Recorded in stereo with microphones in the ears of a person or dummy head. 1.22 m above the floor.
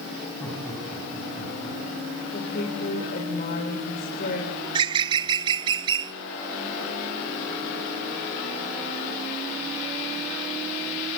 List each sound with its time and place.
0.4 s laughter: 10° left (ahead or behind), 7 m
2.3 s a woman speaking: 50° left (ahead or behind), 4 m
4.6 s a bird: 30° right (ahead or behind), 0.9 m